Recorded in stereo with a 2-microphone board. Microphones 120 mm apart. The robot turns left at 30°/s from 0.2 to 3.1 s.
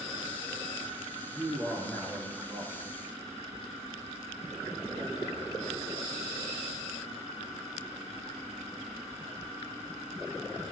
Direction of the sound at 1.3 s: 170° left.